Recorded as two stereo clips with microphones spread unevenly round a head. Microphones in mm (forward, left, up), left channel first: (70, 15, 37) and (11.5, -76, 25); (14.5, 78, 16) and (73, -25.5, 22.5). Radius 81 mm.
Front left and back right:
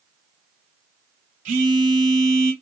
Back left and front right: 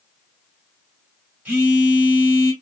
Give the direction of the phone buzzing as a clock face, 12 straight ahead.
5 o'clock.